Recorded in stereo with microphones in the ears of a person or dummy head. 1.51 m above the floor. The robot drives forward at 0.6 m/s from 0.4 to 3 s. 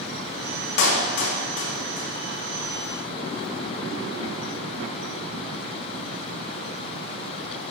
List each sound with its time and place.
0.8 s a clap: 85° left, 2.5 m; by 2.1 s 70° left (ahead or behind), 2.5 m